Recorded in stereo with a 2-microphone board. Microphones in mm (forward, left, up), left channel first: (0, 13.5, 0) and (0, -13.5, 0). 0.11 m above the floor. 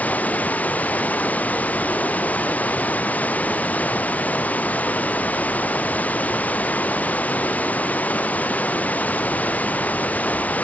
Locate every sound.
0.0 s running water: 75° left (ahead or behind)